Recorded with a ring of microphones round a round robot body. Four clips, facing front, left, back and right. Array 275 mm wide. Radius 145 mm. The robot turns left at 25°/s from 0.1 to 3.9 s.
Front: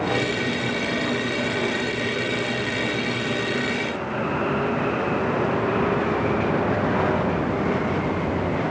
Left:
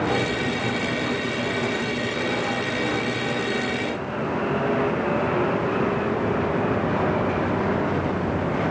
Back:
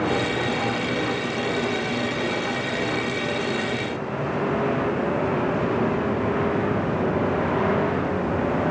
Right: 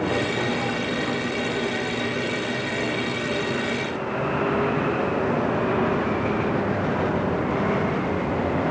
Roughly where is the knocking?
I don't hear knocking.